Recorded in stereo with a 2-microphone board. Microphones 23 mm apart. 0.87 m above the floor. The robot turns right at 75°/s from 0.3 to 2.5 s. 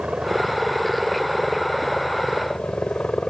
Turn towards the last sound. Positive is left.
turn(degrees=85)